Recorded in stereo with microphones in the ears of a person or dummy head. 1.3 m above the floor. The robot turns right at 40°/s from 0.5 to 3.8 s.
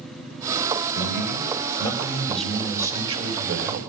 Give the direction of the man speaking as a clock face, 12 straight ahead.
8 o'clock.